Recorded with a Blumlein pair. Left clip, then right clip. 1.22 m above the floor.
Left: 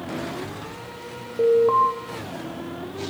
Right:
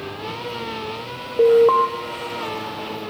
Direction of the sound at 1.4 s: 70° right.